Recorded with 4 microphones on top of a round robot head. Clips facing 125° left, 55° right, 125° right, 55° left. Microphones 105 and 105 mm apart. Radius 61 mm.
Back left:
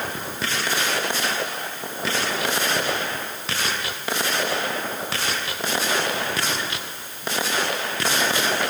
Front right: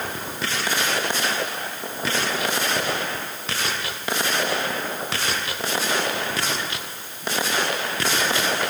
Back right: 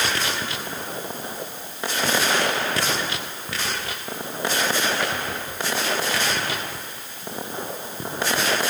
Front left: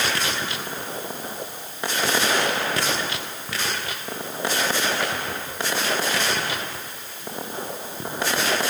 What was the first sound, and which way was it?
Only background noise.